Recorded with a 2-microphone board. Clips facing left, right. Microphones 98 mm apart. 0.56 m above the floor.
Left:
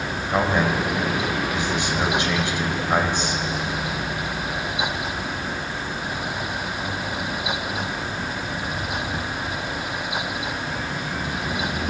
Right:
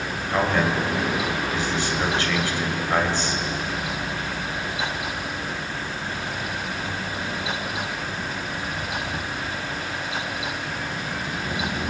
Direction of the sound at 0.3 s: 20° left (ahead or behind).